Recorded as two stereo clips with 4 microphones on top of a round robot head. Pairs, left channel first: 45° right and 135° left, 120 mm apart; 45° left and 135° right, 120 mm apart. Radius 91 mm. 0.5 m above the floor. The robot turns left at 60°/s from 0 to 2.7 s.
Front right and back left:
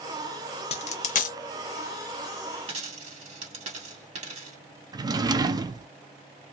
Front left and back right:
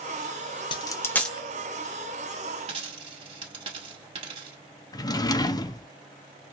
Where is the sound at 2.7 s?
Straight behind, 1.7 m.